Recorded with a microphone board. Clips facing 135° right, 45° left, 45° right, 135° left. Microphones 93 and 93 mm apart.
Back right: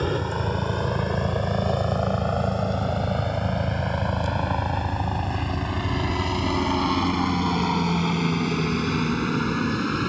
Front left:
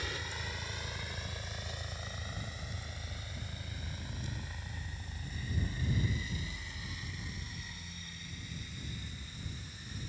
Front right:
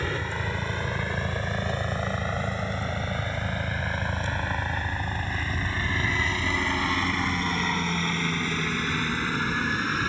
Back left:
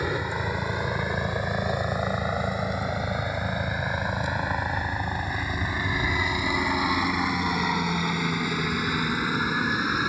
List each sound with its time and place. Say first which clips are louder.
0.0 s a helicopter: back right 17 dB, back left 3 dB; 150° right; by 10.1 s 145° right